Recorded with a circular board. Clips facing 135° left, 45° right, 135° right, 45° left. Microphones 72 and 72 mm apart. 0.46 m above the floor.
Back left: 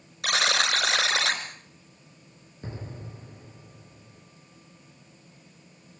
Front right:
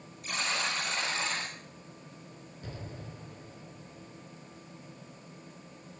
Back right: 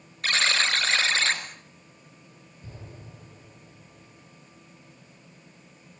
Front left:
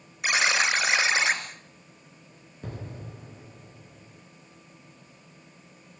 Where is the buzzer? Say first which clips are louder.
Back left 8 dB, front left 1 dB; 120° left, 3 m.